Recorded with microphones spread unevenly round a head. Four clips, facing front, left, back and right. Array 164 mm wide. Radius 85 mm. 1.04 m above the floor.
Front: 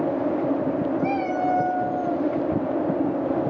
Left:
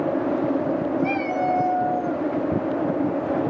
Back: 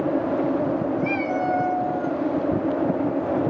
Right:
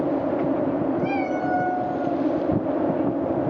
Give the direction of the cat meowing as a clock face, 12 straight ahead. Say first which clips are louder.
Left 1 dB, even; 2 o'clock.